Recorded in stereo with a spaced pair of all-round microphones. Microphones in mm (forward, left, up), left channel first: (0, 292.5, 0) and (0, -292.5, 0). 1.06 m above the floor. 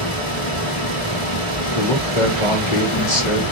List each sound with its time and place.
0.0 s a fan: 60° left (ahead or behind), 1.4 m
1.8 s a man speaking: 55° left (ahead or behind), 1.4 m